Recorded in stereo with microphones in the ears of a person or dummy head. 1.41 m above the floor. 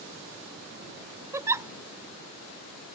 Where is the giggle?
10° right (ahead or behind).